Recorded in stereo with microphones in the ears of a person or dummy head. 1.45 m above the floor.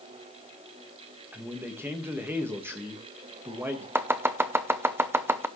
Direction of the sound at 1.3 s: 15° right (ahead or behind).